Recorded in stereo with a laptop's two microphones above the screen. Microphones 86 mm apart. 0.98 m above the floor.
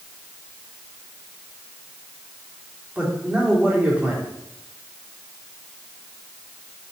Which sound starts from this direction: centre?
A man speaking, at 3.0 s.